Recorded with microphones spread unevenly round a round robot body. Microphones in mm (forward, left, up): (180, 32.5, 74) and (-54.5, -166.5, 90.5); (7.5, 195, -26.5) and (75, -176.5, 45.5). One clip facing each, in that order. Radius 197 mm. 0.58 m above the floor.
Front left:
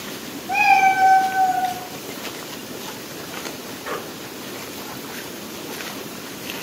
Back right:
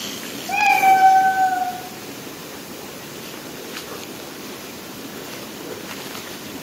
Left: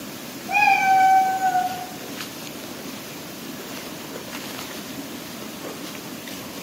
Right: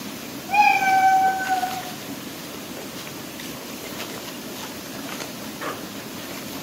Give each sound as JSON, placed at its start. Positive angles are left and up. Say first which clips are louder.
{"t": 0.5, "sound": "a cat meowing", "louder": "back right 1 dB, even", "azimuth_deg": 180, "distance_m": 0.8}